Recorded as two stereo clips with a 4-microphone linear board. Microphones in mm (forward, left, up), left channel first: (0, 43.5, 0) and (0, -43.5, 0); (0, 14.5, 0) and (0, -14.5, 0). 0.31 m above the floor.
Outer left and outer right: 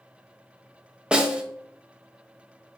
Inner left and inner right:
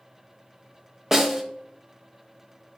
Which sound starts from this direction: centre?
A snare drum, at 1.1 s.